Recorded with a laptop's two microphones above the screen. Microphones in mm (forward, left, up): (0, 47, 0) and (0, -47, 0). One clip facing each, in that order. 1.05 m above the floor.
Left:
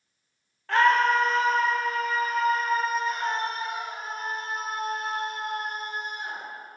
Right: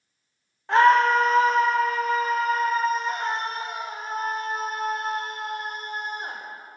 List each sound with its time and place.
0.7 s a scream: 20° right (ahead or behind), 0.6 m; by 6.4 s 45° right (ahead or behind), 4 m